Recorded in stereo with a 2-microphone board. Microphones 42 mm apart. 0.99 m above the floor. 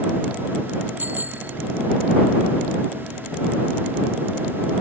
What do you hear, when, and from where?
1.0 s a bicycle bell: 45° right (ahead or behind)